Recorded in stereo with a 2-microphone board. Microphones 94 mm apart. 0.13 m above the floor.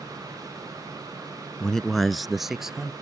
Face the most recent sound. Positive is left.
turn(degrees=-5)  # may be behind; listen again after turning